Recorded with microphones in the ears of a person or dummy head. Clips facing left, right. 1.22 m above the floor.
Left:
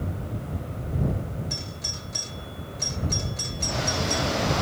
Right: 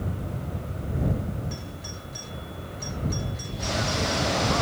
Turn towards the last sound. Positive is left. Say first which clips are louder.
# even
turn(degrees=60)  # may be behind; listen again after turning